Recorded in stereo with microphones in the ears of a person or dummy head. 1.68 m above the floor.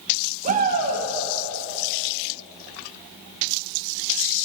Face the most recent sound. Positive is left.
turn(degrees=-45)  # may be behind; listen again after turning